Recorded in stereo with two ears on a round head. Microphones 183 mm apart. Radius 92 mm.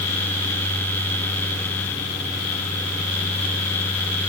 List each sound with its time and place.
Only background noise.